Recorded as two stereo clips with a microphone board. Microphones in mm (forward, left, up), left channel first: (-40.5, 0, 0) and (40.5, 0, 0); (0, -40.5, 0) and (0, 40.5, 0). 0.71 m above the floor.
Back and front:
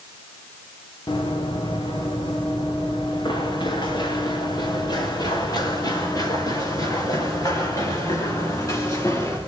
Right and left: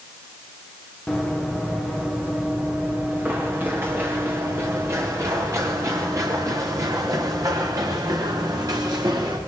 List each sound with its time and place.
1.1 s running footsteps: 175° left, 4 m; by 9.4 s 130° left, 7 m